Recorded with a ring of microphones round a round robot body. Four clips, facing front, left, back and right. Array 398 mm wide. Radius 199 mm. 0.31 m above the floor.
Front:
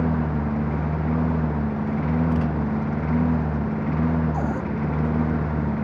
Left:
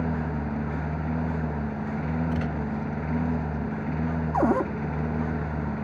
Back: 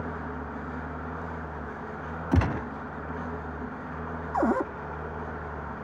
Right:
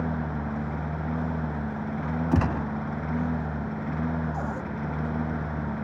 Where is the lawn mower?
5° left.